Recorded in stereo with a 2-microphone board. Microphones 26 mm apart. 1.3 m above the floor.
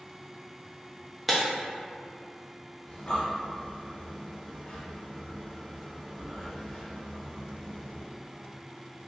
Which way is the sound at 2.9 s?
35° left (ahead or behind).